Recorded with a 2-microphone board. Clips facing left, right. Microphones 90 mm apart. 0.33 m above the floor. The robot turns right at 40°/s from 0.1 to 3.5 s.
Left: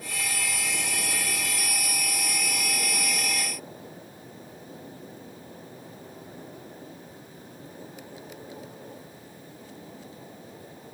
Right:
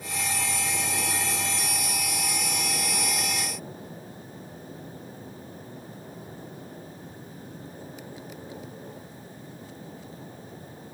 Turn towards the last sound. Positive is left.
No sound to turn to.